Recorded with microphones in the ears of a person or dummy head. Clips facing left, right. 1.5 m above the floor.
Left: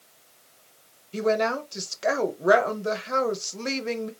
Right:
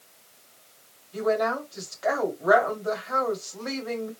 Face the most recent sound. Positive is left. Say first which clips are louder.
# left 1 dB
turn(degrees=40)  # may be behind; listen again after turning